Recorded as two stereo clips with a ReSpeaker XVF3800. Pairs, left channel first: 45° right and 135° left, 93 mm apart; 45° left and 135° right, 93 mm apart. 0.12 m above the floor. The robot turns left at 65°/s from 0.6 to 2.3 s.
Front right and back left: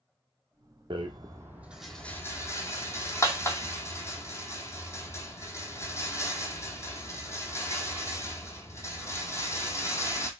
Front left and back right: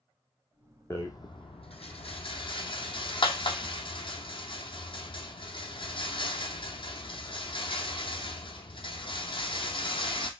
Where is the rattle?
110° left, 0.8 m; by 10.3 s 15° left, 0.8 m.